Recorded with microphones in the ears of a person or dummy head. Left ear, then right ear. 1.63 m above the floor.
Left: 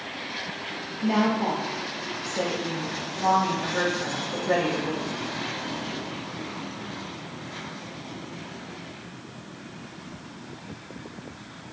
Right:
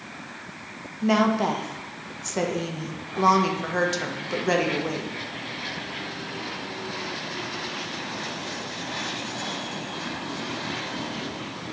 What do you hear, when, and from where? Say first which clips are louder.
1.0 s a woman speaking: right 3 dB; 80° right, 0.9 m